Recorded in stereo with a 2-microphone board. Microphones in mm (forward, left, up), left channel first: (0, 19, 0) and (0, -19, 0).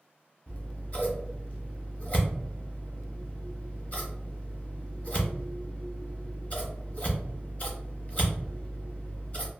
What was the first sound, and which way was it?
Scissors, 35° left (ahead or behind).